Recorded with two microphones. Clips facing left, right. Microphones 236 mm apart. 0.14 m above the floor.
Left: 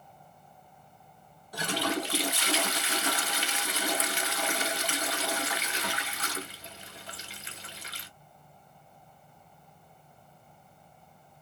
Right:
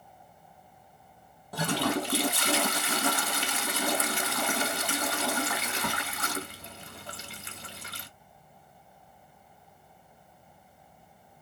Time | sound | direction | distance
1.5 | a toilet flushing | 55° right (ahead or behind) | 0.7 m